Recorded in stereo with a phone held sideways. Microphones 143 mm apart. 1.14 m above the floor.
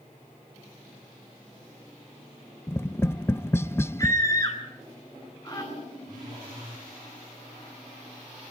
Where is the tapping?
15° left (ahead or behind), 0.5 m.